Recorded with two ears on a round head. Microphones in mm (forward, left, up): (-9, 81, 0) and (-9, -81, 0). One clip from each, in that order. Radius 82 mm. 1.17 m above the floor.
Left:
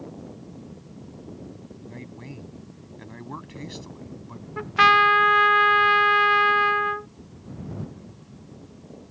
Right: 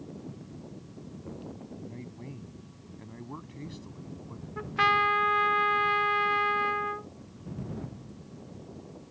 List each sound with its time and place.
1.8 s a man speaking: 55° left (ahead or behind)
4.6 s a trumpet: 30° left (ahead or behind)